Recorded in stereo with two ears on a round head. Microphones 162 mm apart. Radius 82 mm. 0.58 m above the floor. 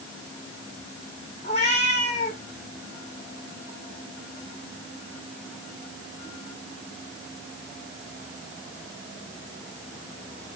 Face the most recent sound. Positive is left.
turn(degrees=40)  # may be behind; listen again after turning